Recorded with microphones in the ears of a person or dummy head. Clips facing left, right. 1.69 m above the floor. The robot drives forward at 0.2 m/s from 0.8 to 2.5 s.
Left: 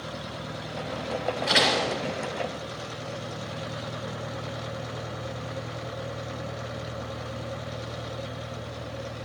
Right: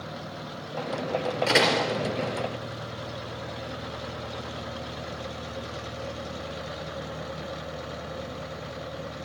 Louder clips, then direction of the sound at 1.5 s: Right 2 dB; 50° right (ahead or behind).